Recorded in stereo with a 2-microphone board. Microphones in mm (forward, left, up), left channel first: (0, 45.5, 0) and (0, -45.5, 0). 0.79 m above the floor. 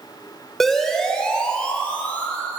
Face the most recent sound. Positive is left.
turn(degrees=20)  # may be behind; listen again after turning